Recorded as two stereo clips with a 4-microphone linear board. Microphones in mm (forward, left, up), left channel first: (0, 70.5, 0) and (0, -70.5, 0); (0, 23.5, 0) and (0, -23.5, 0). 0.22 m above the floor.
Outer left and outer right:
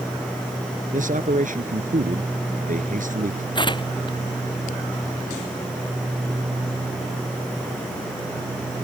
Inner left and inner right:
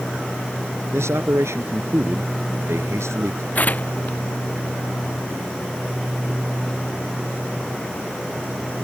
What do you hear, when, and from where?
0.9 s a man speaking: 70° right (ahead or behind)
3.5 s tearing paper: 35° left (ahead or behind)